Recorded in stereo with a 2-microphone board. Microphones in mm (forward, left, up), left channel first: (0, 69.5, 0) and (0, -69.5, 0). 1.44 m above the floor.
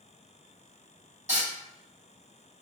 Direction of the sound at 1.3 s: 55° right (ahead or behind).